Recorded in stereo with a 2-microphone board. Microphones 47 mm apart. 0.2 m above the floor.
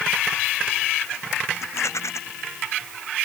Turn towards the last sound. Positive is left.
turn(degrees=85)